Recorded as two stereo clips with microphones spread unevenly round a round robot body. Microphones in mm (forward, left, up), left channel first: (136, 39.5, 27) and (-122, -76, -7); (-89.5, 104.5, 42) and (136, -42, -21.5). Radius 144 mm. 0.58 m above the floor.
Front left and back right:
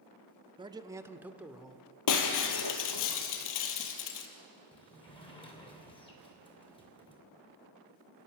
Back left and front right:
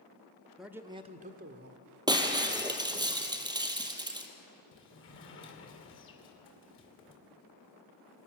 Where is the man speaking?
105° right, 0.9 m; by 1.8 s 70° right, 1.7 m.